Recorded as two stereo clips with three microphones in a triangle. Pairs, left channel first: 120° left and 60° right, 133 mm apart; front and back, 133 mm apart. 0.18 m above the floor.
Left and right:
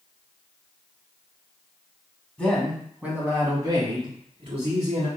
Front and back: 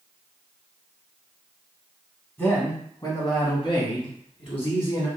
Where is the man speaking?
50° left, 1.1 m; by 5.1 s 35° right, 1.9 m.